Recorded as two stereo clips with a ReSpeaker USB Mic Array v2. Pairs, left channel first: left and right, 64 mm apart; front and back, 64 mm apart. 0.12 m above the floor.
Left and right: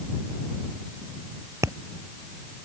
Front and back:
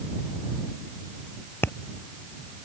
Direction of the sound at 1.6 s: 50° right.